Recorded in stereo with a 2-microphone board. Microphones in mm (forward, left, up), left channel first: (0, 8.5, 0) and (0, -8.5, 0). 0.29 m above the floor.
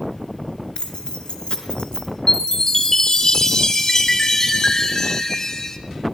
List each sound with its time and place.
0.8 s keys jangling: 70° left (ahead or behind), 3 m; by 2.1 s 65° left (ahead or behind), 2.5 m
2.3 s a chime: 35° left (ahead or behind), 2 m